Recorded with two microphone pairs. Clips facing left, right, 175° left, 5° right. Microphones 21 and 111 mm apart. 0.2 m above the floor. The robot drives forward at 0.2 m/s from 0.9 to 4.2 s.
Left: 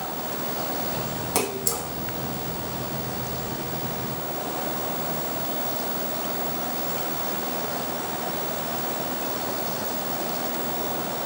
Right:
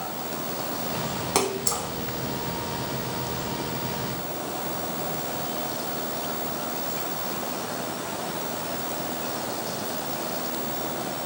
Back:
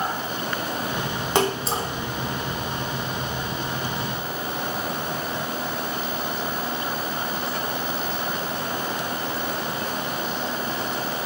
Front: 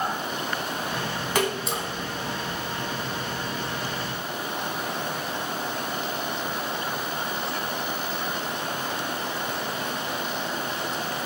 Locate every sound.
1.4 s a splash: 140° right, 0.9 m; by 1.9 s 145° right, 0.9 m